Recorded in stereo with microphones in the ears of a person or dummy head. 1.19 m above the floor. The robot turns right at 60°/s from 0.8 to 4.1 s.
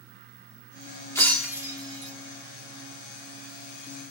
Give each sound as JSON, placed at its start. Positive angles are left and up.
{"t": 1.1, "sound": "breaking glass", "side_deg": 10, "distance_m": 1.8}